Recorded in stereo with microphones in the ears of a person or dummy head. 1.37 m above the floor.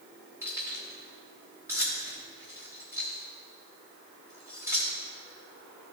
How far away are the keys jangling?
About 2.5 m.